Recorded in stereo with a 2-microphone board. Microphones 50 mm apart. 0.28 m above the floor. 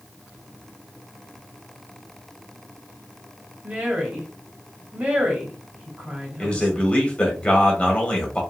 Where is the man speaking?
25° left (ahead or behind), 1.1 m.